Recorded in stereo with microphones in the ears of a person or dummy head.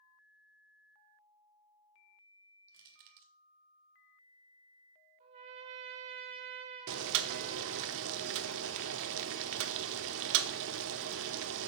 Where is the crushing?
45° right (ahead or behind), 1.3 m.